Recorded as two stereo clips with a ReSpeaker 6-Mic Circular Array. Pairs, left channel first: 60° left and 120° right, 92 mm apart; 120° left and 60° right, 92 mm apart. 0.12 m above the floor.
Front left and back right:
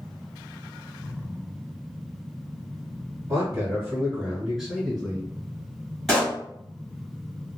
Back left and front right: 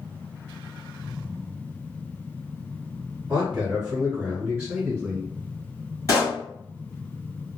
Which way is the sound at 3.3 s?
130° right.